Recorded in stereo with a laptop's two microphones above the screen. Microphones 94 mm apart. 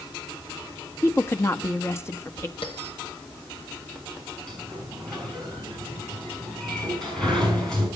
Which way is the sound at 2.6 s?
75° left (ahead or behind).